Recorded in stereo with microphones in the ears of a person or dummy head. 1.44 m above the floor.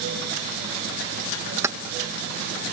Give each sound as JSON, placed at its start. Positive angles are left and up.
{"t": 1.6, "sound": "keys jangling", "side_deg": -15}